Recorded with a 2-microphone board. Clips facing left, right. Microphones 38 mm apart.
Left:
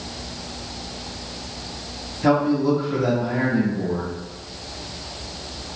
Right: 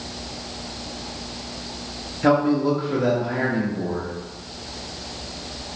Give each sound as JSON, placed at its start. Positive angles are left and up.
{"t": 2.2, "sound": "a man speaking", "side_deg": -15, "distance_m": 0.9}